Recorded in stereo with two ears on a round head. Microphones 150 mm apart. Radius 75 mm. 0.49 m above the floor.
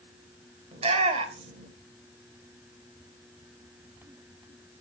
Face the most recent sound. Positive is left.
turn(degrees=-40)  # may be behind; listen again after turning